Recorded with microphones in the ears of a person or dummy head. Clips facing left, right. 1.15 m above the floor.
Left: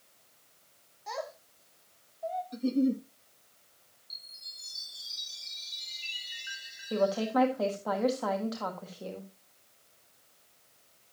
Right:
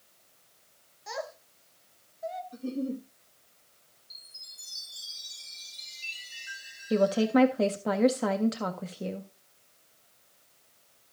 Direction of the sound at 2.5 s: 30° left (ahead or behind).